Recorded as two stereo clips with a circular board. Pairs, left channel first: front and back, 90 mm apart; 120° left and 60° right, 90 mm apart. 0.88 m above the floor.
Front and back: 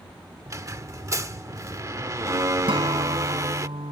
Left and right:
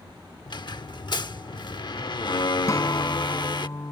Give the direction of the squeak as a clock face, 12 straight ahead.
8 o'clock.